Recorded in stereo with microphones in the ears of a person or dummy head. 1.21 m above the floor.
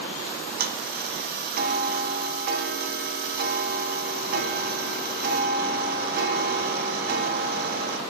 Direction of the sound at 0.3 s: 50° right (ahead or behind).